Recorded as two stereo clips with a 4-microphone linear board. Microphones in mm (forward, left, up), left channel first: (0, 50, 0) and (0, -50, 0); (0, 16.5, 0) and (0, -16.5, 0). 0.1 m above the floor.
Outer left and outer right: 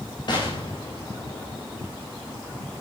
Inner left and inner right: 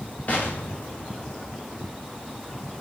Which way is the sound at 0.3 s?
50° left (ahead or behind).